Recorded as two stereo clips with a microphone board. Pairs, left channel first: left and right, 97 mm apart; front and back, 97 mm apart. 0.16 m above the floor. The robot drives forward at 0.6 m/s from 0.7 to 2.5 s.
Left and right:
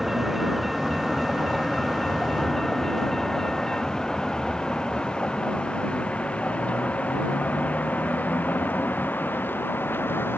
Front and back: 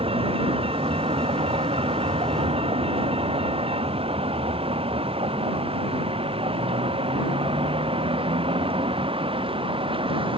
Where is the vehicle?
175° right; by 10.4 s 160° left.